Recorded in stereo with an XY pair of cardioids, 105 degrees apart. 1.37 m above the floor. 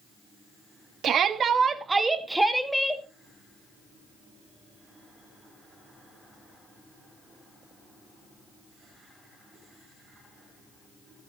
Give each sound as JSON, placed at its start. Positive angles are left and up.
{"t": 1.0, "sound": "a shout", "azimuth_deg": -60, "distance_m": 2.5}